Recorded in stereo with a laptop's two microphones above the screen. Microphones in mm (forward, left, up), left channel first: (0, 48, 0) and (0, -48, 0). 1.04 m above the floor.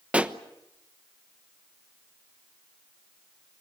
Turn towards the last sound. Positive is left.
turn(degrees=-15)  # may be behind; listen again after turning